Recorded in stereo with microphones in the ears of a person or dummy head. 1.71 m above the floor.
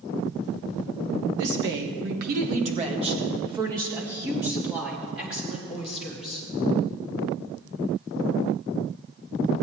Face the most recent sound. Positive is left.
turn(degrees=0)  # may be behind; listen again after turning